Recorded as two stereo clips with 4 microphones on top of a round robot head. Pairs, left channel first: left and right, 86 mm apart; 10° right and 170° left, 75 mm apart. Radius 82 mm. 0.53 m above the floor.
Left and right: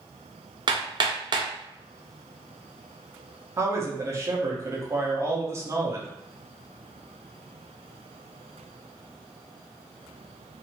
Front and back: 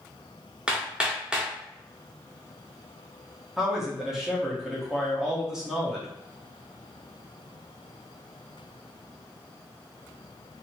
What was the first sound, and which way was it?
Hammering, 110° right.